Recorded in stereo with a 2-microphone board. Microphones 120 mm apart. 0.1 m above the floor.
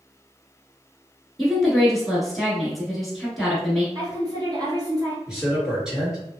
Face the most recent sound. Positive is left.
turn(degrees=-5)  # may be behind; listen again after turning